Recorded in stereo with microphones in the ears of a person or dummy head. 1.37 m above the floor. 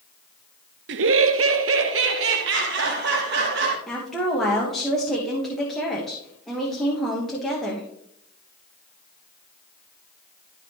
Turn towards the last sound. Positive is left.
turn(degrees=-5)  # may be behind; listen again after turning